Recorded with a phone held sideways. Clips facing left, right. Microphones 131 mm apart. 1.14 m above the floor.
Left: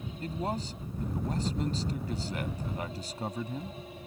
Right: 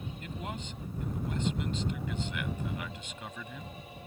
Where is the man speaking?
35° left (ahead or behind).